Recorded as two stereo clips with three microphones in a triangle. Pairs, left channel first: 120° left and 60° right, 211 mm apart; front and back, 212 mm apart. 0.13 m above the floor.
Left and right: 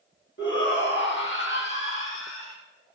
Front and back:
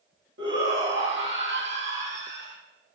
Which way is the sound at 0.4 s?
155° left.